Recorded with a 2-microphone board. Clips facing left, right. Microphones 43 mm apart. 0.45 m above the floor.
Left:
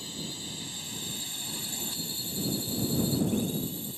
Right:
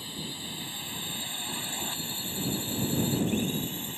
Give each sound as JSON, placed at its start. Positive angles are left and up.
{"t": 0.0, "sound": "a drone", "side_deg": -20}